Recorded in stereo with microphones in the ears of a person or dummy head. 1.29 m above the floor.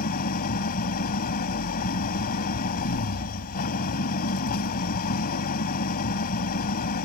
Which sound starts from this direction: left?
An engine running, at 0.0 s.